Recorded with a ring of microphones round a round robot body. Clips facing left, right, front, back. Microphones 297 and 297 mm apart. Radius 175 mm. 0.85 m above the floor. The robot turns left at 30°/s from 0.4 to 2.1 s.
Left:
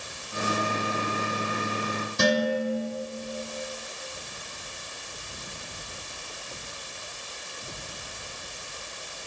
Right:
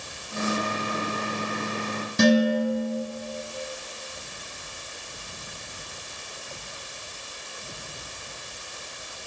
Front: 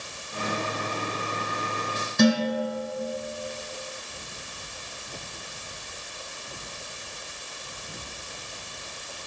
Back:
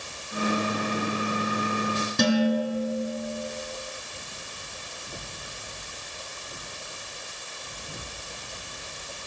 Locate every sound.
2.2 s dishes clattering: 125° right, 5 m